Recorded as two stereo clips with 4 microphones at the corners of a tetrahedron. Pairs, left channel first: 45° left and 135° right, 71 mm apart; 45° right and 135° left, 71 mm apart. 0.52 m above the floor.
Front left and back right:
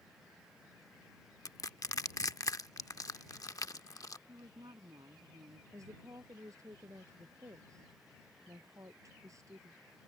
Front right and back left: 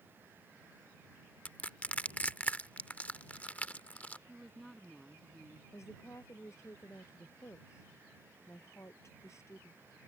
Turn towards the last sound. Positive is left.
turn(degrees=-95)